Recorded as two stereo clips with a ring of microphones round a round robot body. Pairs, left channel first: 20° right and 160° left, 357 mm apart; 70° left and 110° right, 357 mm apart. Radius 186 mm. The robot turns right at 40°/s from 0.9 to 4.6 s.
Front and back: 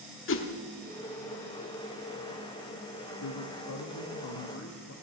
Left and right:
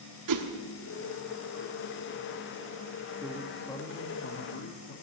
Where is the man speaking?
35° right, 1.6 m; by 4.9 s 20° left, 1.6 m.